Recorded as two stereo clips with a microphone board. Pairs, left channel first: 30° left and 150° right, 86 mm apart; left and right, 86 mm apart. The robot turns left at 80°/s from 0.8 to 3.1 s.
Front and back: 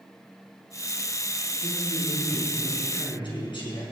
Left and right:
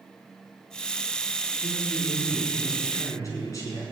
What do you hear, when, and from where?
1.6 s a man speaking: 160° left, 5 m; by 3.8 s 40° left, 5 m